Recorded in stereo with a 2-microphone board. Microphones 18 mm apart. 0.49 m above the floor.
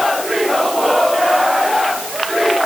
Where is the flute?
I don't hear a flute.